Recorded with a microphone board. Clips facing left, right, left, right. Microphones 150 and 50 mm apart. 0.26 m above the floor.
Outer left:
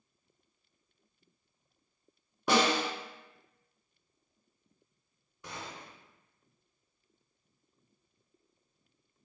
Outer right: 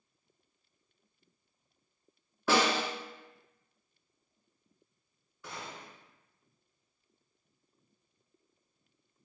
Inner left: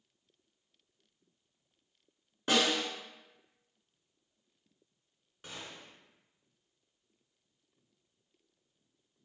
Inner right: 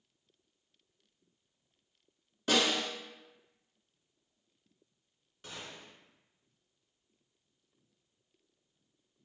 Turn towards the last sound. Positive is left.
turn(degrees=20)  # may be behind; listen again after turning